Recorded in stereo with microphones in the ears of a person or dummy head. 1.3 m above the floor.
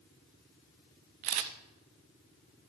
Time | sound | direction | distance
1.2 | a camera shutter | 40° right (ahead or behind) | 0.8 m